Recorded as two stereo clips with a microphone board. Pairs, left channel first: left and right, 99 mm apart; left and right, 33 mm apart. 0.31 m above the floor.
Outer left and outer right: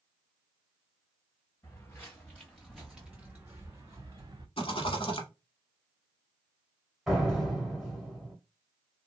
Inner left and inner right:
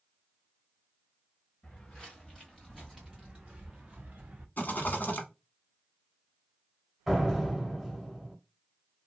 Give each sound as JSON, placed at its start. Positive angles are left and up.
{"t": 1.6, "sound": "footsteps", "side_deg": 25, "distance_m": 1.5}
{"t": 4.6, "sound": "a rattle", "side_deg": 70, "distance_m": 1.0}
{"t": 7.1, "sound": "a door slam", "side_deg": -5, "distance_m": 1.0}